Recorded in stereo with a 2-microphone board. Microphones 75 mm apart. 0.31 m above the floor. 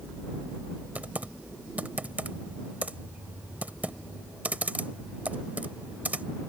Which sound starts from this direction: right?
Typing on a keyboard, at 0.9 s.